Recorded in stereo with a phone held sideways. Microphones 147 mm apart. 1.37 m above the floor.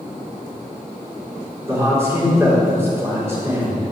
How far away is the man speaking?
About 4 m.